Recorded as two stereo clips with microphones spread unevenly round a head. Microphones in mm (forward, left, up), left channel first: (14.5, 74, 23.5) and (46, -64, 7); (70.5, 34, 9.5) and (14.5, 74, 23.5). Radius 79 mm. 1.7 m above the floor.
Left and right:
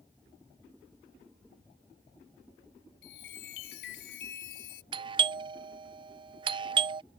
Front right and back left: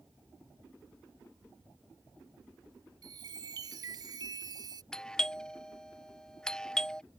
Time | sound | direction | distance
3.0 | a chime | 130° left | ?
4.9 | a doorbell | 100° right | ?